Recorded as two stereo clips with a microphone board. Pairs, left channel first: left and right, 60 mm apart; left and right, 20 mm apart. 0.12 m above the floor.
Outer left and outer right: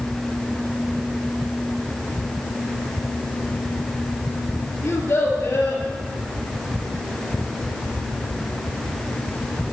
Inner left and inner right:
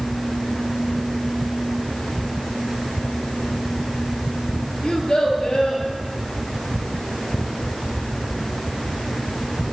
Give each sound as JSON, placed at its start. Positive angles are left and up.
{"t": 4.8, "sound": "a child speaking", "side_deg": 60, "distance_m": 2.0}